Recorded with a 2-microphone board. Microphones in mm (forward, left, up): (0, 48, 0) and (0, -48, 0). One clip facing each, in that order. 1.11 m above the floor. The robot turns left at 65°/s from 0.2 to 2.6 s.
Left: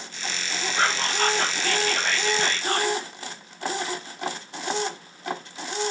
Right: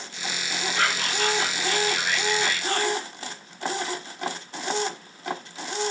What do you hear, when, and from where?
0.8 s whispering: 165° left, 0.7 m; by 2.9 s 50° left, 0.7 m